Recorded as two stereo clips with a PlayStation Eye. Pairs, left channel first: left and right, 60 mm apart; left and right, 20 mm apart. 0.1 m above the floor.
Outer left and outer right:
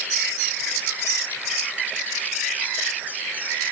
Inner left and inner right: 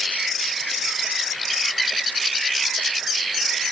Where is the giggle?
I don't hear a giggle.